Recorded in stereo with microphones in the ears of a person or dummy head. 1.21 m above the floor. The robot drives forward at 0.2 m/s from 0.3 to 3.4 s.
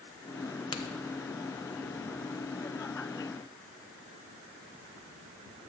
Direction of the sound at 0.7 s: 25° left (ahead or behind).